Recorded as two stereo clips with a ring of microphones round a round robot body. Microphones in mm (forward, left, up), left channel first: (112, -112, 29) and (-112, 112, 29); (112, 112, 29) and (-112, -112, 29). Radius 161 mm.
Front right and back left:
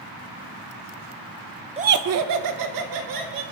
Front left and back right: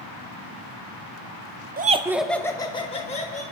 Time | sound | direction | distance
1.8 | laughter | 170° right | 0.7 m